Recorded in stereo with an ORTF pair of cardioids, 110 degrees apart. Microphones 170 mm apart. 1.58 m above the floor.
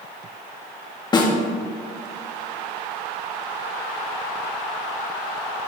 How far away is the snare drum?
About 2 m.